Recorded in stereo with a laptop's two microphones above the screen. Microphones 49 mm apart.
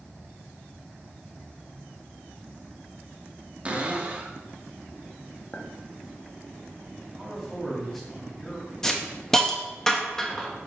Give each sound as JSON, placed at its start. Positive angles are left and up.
{"t": 3.6, "sound": "a cupboard door", "side_deg": -25, "distance_m": 1.0}
{"t": 5.5, "sound": "a clink", "side_deg": 30, "distance_m": 0.8}
{"t": 7.2, "sound": "a man speaking", "side_deg": 5, "distance_m": 1.9}
{"t": 8.8, "sound": "a hiss", "side_deg": 10, "distance_m": 0.8}